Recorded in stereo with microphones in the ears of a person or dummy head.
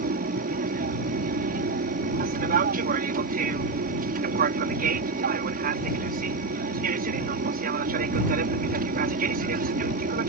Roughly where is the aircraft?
Right.